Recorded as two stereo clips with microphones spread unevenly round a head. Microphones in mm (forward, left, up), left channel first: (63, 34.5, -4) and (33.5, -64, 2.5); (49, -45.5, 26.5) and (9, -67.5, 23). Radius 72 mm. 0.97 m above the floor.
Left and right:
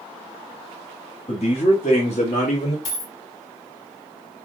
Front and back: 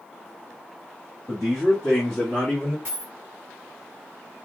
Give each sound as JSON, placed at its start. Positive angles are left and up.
{"t": 1.3, "sound": "a man speaking", "azimuth_deg": 125, "distance_m": 1.9}
{"t": 2.9, "sound": "a dropped coin", "azimuth_deg": 130, "distance_m": 1.3}